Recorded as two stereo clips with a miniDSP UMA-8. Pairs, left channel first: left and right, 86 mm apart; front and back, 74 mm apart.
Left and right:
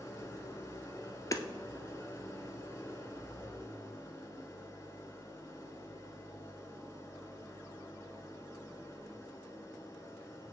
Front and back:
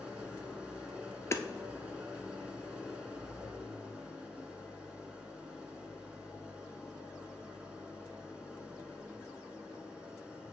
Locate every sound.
0.0 s an engine running: 115° left, 1.4 m
1.3 s hammering: 50° left, 0.6 m